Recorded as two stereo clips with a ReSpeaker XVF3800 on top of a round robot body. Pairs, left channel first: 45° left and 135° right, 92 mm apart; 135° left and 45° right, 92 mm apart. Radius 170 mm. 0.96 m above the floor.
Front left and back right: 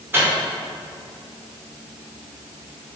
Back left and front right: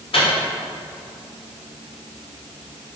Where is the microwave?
160° left, 2.5 m.